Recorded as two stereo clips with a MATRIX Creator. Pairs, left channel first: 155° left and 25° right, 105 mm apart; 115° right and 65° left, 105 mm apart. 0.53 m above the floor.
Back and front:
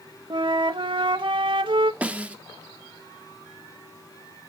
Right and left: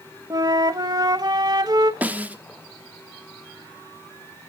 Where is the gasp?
I don't hear a gasp.